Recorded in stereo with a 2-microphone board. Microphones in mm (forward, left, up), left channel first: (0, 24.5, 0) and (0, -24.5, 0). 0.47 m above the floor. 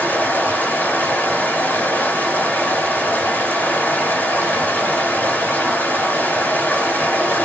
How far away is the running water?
About 2.5 m.